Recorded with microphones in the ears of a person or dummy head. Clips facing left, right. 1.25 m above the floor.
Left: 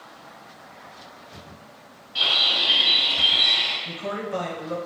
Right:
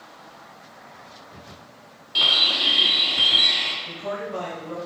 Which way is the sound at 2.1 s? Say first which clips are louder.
Right 1 dB; 50° right (ahead or behind).